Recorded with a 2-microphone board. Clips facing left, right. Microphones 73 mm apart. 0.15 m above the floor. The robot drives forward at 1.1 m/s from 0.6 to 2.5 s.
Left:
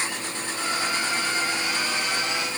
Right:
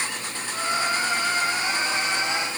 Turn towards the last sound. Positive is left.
No sound to turn to.